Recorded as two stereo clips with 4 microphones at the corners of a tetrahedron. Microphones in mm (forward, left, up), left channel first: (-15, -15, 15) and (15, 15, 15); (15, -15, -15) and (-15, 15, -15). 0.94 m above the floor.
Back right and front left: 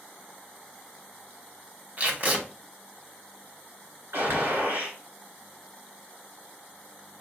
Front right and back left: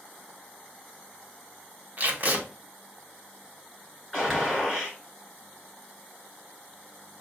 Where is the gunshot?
45° left, 2.5 m.